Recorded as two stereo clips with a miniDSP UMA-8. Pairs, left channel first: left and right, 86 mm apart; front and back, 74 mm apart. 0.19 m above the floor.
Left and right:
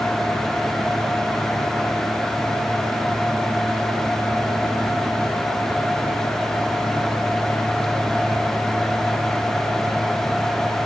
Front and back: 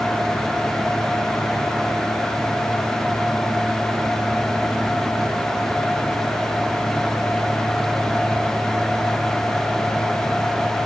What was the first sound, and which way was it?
Only background noise.